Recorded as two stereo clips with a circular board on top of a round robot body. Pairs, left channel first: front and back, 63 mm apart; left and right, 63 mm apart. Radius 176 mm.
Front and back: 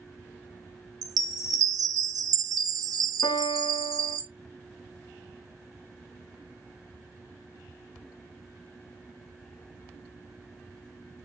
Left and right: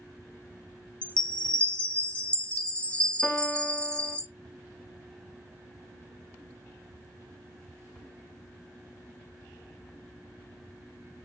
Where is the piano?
5° left, 0.6 m.